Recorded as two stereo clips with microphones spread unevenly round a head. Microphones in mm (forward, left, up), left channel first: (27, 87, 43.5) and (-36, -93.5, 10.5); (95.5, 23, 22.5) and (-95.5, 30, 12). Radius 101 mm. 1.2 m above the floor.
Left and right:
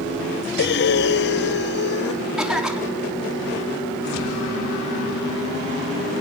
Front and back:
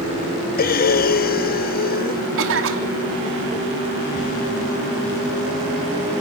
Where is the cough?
165° left, 3.5 m.